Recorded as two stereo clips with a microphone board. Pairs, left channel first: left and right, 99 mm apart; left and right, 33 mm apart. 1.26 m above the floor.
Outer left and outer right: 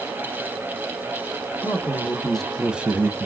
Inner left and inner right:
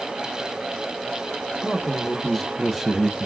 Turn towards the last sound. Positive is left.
turn(degrees=-35)  # may be behind; listen again after turning